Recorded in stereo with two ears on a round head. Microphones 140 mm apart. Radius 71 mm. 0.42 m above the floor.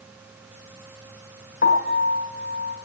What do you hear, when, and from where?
1.6 s a piano: 65° left (ahead or behind), 2 m